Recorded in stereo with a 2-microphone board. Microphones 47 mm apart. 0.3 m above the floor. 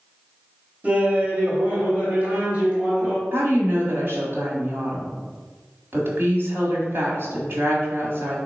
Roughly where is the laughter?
Right.